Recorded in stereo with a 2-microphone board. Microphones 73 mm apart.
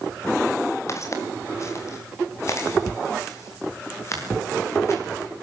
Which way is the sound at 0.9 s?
45° left (ahead or behind).